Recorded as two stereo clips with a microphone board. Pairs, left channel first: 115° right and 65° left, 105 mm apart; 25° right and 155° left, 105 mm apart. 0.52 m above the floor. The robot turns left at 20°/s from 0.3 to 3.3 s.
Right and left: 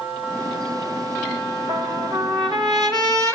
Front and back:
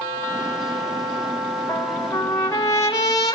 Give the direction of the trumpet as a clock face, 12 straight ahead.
10 o'clock.